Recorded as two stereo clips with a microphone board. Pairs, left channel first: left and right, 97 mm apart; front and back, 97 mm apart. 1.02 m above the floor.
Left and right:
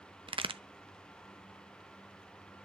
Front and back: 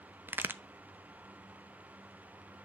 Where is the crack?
110° right, 0.8 m.